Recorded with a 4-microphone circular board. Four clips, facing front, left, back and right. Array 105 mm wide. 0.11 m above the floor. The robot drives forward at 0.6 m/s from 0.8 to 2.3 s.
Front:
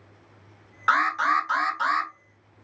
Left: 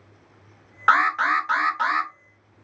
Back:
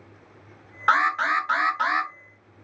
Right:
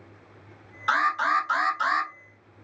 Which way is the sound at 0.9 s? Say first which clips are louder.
Left 4 dB, even; 100° left.